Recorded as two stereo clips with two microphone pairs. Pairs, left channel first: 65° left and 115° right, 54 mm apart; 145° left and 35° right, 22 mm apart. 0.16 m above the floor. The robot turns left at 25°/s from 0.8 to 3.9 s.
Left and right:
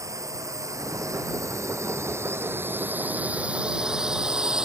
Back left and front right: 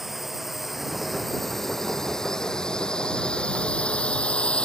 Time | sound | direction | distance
0.0 | a drone | 115° right | ?